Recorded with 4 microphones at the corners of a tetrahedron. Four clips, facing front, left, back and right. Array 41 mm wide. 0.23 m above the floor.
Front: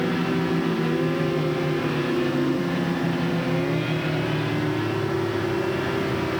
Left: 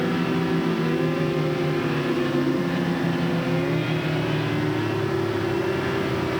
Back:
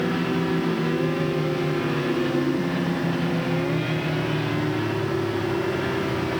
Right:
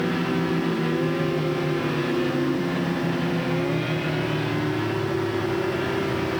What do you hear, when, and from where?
Only background noise.